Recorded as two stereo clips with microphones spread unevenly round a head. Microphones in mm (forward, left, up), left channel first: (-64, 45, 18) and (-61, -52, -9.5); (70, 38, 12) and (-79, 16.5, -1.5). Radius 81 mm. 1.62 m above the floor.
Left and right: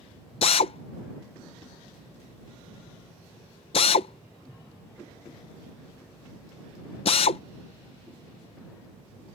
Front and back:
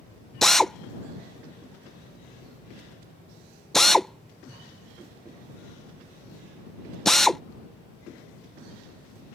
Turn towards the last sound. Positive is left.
turn(degrees=95)